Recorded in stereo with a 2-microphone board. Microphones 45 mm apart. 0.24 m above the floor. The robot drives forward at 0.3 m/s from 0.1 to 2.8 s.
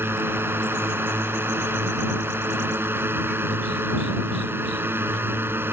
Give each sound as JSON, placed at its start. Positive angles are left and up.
{"t": 0.0, "sound": "a drone", "side_deg": -60}